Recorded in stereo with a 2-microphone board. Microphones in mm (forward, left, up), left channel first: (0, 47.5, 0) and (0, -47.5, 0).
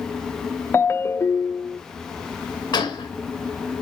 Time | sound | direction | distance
0.7 | a ringtone | 25° left (ahead or behind) | 0.6 m
2.7 | a gunshot | 45° left (ahead or behind) | 2.5 m